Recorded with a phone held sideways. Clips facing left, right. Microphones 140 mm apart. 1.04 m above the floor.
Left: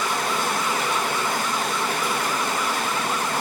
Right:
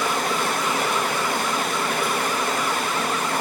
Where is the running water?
65° right (ahead or behind), 8 m.